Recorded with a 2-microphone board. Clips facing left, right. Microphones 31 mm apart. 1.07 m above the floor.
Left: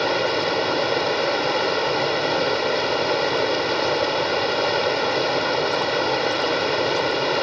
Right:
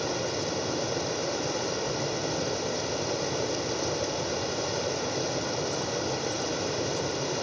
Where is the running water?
55° left (ahead or behind), 1.0 m.